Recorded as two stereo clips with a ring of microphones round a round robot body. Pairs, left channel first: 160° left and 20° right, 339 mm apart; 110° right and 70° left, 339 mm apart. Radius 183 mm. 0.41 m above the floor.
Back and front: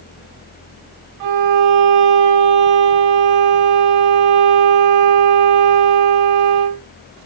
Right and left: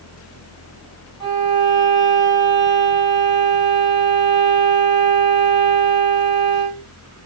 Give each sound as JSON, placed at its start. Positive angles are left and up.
{"t": 1.2, "sound": "a violin", "azimuth_deg": -10, "distance_m": 0.7}